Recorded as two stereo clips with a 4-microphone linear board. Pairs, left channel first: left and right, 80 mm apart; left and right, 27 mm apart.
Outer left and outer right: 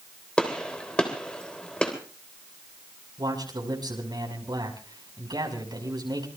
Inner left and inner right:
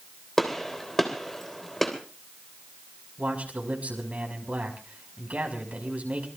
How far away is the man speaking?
About 6 m.